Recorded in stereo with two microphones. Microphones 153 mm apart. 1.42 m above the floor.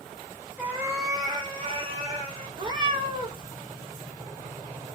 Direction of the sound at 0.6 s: 10° right (ahead or behind).